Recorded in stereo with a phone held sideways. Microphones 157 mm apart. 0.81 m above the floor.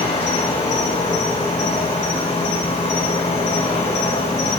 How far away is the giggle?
I don't hear a giggle.